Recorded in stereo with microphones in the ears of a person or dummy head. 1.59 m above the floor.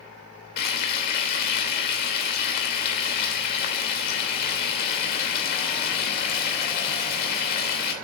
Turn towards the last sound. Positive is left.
turn(degrees=55)  # may be behind; listen again after turning